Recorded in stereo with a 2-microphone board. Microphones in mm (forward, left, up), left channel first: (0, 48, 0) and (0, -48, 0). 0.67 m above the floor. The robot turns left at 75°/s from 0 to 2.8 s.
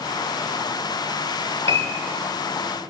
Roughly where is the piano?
Right.